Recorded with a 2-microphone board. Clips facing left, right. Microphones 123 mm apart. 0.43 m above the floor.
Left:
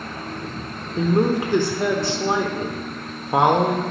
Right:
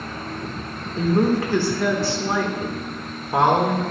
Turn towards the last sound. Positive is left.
turn(degrees=20)  # may be behind; listen again after turning